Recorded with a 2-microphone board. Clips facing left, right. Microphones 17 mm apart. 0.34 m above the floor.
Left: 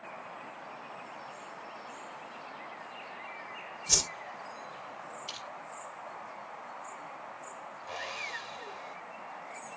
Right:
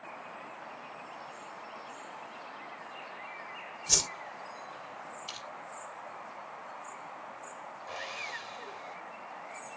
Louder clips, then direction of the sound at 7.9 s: Left 1 dB; centre (ahead or behind).